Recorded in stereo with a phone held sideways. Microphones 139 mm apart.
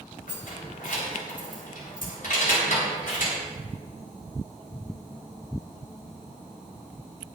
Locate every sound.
0.3 s keys jangling: 80° left, 3.5 m